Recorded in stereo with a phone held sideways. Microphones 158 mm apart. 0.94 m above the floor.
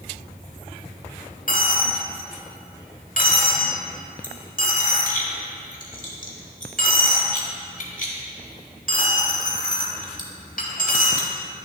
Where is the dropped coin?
60° left (ahead or behind), 1.1 m.